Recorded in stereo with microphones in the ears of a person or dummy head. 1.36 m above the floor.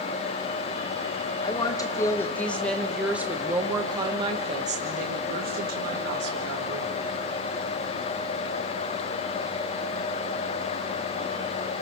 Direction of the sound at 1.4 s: 25° left (ahead or behind).